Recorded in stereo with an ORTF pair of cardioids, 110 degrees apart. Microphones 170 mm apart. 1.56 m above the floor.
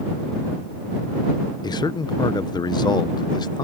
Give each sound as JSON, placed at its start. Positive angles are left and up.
{"t": 1.6, "sound": "a man speaking", "azimuth_deg": 25}